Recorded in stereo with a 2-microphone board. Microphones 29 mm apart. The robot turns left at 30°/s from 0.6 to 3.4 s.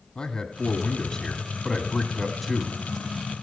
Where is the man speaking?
55° left, 1.3 m; by 2.8 s 10° right, 1.3 m.